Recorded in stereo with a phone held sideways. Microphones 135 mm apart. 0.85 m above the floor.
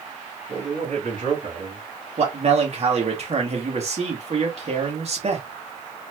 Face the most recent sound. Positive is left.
turn(degrees=-50)  # may be behind; listen again after turning